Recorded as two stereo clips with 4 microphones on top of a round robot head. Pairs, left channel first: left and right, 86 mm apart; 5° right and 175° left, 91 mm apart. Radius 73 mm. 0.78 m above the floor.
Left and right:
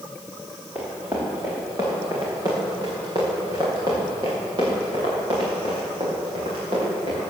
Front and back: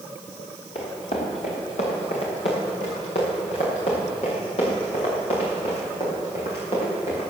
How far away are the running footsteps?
About 6 m.